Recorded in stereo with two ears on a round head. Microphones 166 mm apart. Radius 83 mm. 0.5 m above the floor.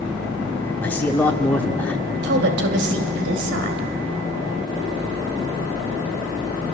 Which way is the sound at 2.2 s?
65° right (ahead or behind).